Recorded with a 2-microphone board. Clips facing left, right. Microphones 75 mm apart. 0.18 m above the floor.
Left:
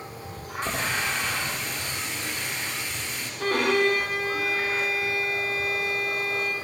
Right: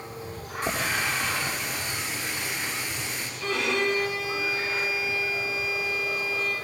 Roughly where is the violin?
Left.